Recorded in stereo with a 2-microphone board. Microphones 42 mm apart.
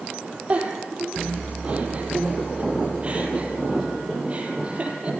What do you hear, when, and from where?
0.5 s a giggle: 30° right (ahead or behind), 3.5 m